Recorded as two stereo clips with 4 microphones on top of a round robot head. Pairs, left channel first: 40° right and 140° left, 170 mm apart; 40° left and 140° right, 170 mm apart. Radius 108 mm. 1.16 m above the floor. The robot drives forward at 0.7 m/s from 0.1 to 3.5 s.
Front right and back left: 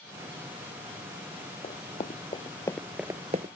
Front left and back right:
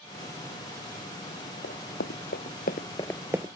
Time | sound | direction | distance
1.6 | running footsteps | 15° left | ?